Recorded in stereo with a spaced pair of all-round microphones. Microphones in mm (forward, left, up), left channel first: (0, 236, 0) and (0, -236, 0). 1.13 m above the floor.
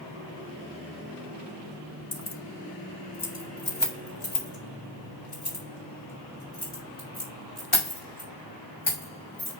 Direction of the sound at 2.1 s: 30° left (ahead or behind).